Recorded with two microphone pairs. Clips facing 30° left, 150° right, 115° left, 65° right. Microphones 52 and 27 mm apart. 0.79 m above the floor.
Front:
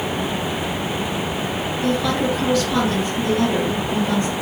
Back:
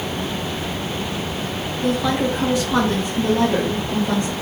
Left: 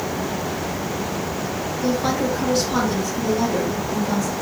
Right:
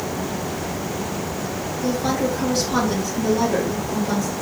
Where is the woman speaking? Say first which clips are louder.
Back 1 dB, even; 135° left, 1.0 m; by 4.3 s 100° right, 1.5 m.